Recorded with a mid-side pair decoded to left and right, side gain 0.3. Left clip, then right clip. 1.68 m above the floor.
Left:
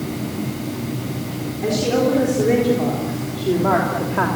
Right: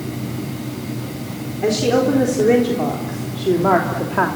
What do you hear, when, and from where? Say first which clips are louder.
1.6 s a woman speaking: right 2 dB; 60° right, 4 m; by 4.3 s 40° right, 3 m